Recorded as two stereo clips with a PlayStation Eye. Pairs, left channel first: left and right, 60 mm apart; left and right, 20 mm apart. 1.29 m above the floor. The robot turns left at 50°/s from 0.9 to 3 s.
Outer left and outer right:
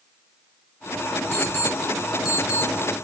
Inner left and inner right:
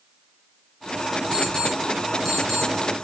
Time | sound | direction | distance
1.3 | an alarm clock | 45° left (ahead or behind) | 5 m